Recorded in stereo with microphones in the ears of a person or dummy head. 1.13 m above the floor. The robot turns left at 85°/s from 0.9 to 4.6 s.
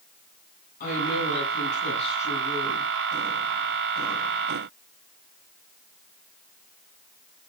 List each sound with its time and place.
0.8 s a woman speaking: 130° left, 9 m; by 2.9 s 40° right, 9 m